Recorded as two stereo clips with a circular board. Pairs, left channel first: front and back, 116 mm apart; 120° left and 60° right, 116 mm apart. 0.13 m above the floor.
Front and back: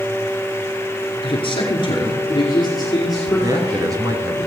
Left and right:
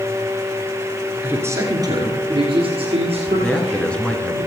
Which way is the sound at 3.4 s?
165° right.